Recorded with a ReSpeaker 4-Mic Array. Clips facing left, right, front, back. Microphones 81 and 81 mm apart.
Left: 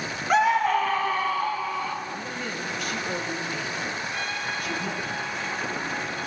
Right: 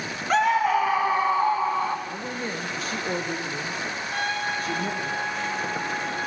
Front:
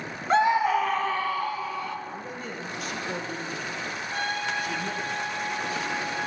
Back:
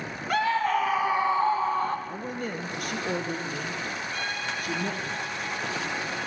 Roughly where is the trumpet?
Ahead right.